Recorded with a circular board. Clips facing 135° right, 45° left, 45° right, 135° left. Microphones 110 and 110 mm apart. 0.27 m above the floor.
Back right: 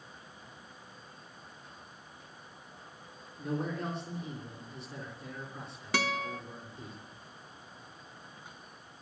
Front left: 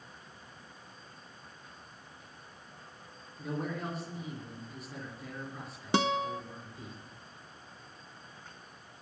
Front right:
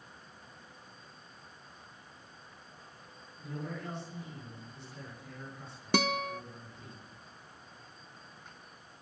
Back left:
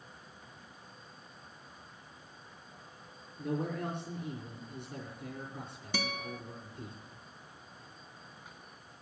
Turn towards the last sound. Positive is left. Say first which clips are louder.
# front left 4 dB, front right 8 dB
turn(degrees=-20)